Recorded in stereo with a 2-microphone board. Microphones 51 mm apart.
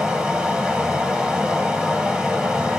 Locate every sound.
0.0 s running water: 20° right (ahead or behind), 1.2 m